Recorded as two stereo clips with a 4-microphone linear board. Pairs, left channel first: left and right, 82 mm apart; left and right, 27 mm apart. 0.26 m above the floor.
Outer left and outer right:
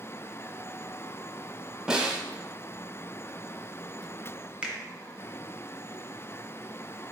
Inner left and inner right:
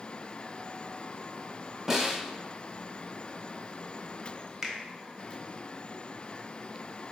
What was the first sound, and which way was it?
A snare drum, 10° right (ahead or behind).